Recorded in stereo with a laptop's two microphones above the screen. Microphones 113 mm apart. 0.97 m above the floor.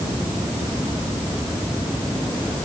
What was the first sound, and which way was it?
Only background noise.